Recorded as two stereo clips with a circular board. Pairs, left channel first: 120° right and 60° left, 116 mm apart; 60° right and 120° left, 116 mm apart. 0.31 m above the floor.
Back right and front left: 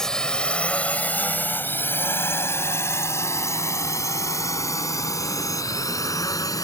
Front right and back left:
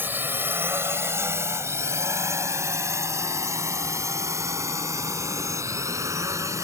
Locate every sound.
0.0 s a drone: 165° left; by 6.6 s straight behind